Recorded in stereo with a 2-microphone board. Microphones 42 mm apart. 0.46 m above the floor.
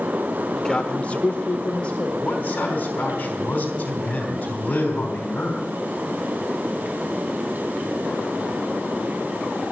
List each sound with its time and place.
0.6 s a man speaking: 15° left (ahead or behind), 1.2 m; by 2.1 s 30° left (ahead or behind), 1.8 m
2.2 s a man speaking: 40° left (ahead or behind), 3.5 m